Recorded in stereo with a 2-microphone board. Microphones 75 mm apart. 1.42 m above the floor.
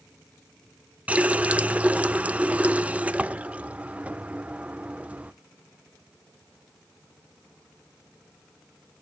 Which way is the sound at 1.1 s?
20° right (ahead or behind).